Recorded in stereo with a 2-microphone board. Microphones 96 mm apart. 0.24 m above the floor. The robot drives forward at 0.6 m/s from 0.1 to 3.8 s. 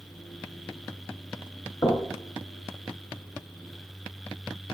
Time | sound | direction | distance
1.8 | knocking | 35° left (ahead or behind) | 2.5 m